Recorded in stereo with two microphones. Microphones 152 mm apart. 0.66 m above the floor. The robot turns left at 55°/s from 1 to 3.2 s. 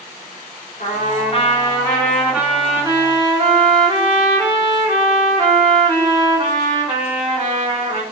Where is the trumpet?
70° left, 1.3 m; by 8.0 s 50° right, 1.3 m.